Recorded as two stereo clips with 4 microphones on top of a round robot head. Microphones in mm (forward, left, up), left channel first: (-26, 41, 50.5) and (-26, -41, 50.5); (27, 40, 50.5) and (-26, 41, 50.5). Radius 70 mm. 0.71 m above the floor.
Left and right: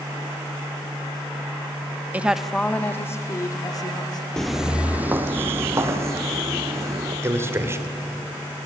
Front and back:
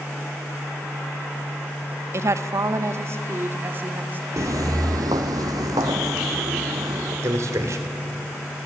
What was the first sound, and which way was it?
A woman speaking, 160° right.